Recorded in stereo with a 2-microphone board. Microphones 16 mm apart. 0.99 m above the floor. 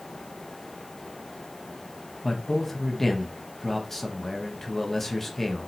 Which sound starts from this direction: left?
A man speaking, at 2.2 s.